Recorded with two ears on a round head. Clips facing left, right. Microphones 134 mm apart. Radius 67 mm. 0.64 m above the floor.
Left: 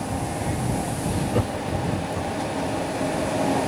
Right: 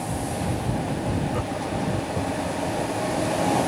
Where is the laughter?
45° left (ahead or behind); by 2.6 s 45° right (ahead or behind).